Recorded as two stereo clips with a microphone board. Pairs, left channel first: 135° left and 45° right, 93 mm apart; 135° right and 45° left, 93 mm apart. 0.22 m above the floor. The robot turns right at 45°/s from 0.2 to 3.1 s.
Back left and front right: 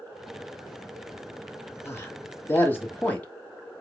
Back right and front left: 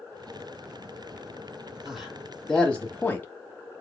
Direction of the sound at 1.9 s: 125° left.